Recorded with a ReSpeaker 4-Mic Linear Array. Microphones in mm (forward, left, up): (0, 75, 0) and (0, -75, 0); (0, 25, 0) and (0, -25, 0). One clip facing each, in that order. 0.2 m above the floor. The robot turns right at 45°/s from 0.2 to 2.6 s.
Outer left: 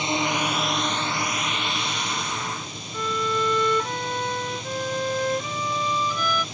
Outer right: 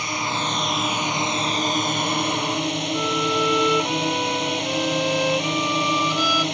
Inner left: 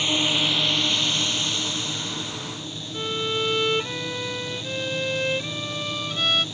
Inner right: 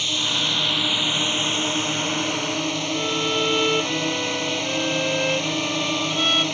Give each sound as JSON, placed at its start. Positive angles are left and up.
{"t": 0.0, "sound": "a drone", "azimuth_deg": 155}
{"t": 2.9, "sound": "a violin", "side_deg": -10}